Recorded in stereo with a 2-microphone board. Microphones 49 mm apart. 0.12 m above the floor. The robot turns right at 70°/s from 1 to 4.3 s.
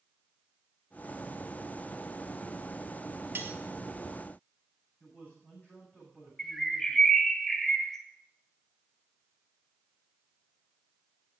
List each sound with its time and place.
3.4 s cutlery clinking: 45° right (ahead or behind), 1.3 m; by 3.6 s 35° right (ahead or behind), 1.3 m
5.0 s a man speaking: 30° left (ahead or behind), 7.5 m
6.4 s a bird: 10° left (ahead or behind), 1.7 m